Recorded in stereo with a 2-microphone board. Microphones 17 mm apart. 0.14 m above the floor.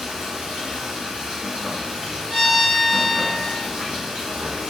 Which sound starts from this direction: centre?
A violin, at 2.3 s.